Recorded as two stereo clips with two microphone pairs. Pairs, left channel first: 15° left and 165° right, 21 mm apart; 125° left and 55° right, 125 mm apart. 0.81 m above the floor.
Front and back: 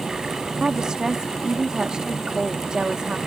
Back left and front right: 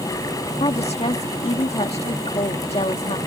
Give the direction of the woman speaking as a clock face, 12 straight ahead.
7 o'clock.